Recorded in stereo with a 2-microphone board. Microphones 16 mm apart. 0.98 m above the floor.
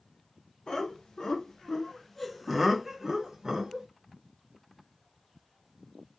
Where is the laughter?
60° left (ahead or behind), 1.4 m; by 3.9 s 45° right (ahead or behind), 1.2 m.